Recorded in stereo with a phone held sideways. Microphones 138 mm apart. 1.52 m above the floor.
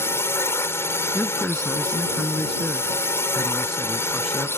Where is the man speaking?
5° left (ahead or behind).